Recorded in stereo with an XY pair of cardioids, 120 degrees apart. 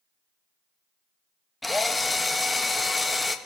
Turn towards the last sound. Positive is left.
turn(degrees=15)